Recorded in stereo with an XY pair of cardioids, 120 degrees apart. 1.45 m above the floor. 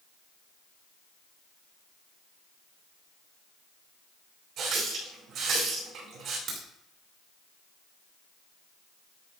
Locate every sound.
4.6 s a running tap: 70° right, 4.5 m
6.5 s a crack: 60° right, 3 m